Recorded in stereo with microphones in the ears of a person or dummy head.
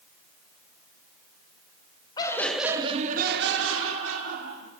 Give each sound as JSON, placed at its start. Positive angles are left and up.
{"t": 2.2, "sound": "laughter", "side_deg": 20, "distance_m": 0.9}